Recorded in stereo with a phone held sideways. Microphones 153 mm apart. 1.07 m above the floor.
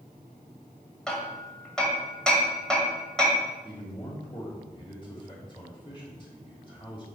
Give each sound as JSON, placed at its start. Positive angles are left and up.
{"t": 1.1, "sound": "hammering", "side_deg": 5, "distance_m": 2.0}
{"t": 3.6, "sound": "a man speaking", "side_deg": 35, "distance_m": 2.5}